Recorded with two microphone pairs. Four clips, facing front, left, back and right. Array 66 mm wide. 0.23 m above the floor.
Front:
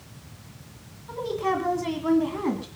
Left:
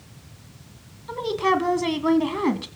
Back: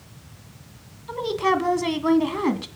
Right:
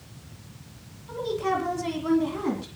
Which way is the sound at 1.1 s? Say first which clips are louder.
Left 5 dB, back 4 dB; 135° left.